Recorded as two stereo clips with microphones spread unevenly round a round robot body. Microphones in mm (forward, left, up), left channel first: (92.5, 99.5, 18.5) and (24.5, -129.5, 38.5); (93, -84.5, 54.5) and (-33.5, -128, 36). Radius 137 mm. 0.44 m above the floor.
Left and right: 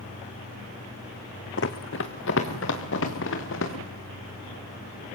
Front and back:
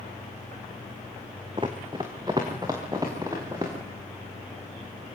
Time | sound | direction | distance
1.6 | running footsteps | 125° left | 1.3 m